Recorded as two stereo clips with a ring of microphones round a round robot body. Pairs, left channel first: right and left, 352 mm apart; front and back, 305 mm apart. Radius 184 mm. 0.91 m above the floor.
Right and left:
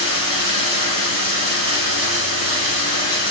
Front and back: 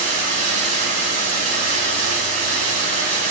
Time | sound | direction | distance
0.0 | running water | 145° left | 4 m